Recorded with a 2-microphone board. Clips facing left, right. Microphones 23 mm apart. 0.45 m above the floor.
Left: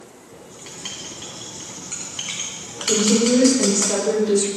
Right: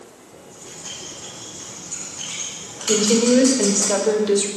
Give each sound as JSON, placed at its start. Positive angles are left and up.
{"t": 0.3, "sound": "writing", "side_deg": 70, "distance_m": 2.0}
{"t": 2.9, "sound": "a woman speaking", "side_deg": -50, "distance_m": 1.4}